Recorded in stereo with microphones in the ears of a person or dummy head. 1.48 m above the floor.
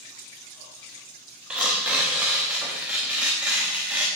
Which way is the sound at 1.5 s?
5° right (ahead or behind).